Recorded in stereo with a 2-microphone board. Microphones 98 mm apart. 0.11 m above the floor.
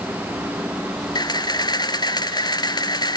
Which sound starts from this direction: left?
A camera shutter, at 1.1 s.